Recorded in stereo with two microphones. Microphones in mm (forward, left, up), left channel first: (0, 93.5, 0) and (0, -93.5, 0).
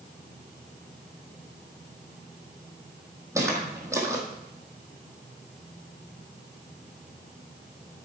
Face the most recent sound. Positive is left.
turn(degrees=-15)  # may be behind; listen again after turning